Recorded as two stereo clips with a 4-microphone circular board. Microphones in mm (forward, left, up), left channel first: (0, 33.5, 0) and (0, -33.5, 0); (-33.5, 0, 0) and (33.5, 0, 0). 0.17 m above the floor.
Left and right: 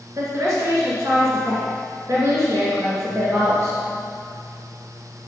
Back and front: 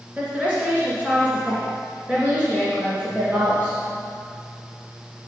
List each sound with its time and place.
0.2 s a woman speaking: 60° right, 2.5 m